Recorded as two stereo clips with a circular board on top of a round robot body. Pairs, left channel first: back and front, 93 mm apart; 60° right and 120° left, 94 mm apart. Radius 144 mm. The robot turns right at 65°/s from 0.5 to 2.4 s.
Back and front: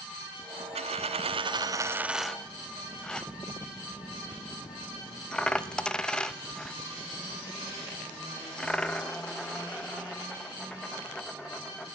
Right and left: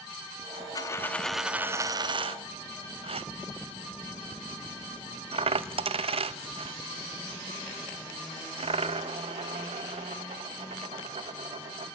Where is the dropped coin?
10° right, 0.7 m; by 11.9 s 100° left, 0.7 m.